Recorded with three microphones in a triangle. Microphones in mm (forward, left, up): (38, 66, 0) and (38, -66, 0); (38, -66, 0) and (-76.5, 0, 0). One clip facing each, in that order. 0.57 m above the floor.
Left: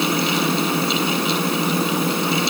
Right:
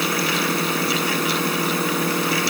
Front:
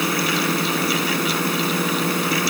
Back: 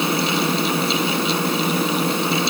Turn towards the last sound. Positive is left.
No sound to turn to.